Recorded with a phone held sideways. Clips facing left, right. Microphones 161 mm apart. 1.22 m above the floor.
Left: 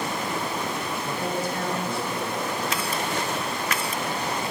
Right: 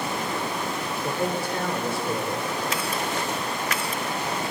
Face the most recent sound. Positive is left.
turn(degrees=-85)